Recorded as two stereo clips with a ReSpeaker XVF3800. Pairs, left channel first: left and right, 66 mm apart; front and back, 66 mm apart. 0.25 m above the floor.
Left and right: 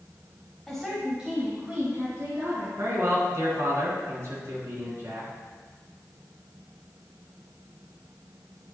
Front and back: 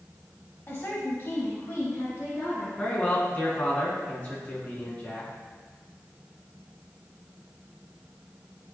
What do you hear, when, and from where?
0.7 s a woman speaking: 10° left, 1.5 m; by 2.7 s 45° right, 3 m
2.8 s a man speaking: 60° right, 2.5 m